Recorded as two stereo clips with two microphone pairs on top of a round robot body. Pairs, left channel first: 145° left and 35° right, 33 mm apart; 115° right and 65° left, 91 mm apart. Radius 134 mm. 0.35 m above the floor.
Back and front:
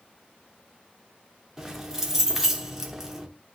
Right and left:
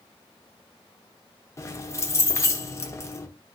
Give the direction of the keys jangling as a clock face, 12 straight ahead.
3 o'clock.